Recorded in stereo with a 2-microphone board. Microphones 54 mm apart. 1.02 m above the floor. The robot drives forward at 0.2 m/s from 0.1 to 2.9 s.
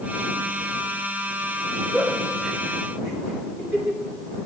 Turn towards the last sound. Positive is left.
turn(degrees=-10)  # may be behind; listen again after turning